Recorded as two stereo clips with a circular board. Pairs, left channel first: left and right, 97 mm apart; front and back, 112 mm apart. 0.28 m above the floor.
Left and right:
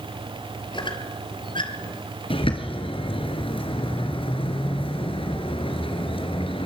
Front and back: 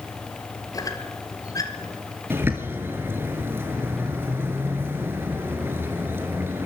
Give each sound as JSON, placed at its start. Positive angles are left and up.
{"t": 0.7, "sound": "a squeak", "azimuth_deg": 55, "distance_m": 2.5}
{"t": 2.3, "sound": "a bird", "azimuth_deg": 110, "distance_m": 2.5}